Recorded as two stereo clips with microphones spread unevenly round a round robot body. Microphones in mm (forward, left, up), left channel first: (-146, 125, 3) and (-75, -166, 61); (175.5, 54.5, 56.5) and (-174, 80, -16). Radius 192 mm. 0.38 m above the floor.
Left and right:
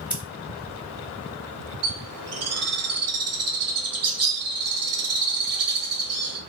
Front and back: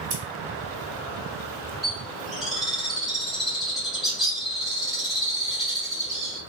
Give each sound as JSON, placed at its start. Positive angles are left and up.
{"t": 0.1, "sound": "scissors", "azimuth_deg": -165, "distance_m": 2.0}
{"t": 1.8, "sound": "a bird", "azimuth_deg": -105, "distance_m": 1.2}